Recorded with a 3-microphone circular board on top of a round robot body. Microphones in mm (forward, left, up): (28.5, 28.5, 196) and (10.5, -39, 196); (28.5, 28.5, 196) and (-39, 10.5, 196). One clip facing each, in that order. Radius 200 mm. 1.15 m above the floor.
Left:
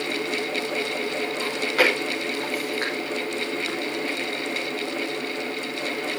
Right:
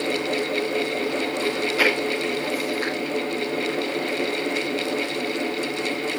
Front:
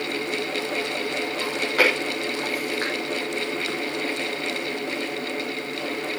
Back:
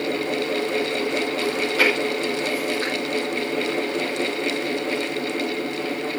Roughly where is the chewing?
Ahead left.